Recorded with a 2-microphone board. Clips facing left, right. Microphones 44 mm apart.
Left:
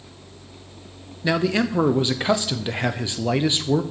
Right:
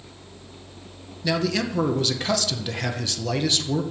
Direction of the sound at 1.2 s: 25° left (ahead or behind).